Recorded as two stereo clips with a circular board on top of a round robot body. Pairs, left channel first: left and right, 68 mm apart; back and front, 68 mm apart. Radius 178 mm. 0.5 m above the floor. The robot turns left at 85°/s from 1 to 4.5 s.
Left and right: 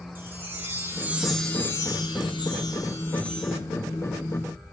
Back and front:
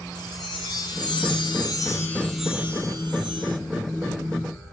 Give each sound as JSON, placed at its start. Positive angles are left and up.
{"t": 0.1, "sound": "a chime", "azimuth_deg": -155, "distance_m": 2.0}